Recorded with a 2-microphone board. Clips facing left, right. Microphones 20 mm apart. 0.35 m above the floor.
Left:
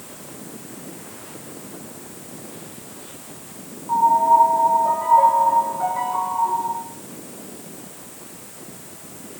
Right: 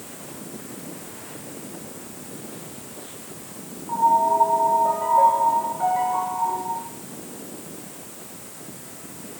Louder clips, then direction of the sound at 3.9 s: Left 3 dB; centre (ahead or behind).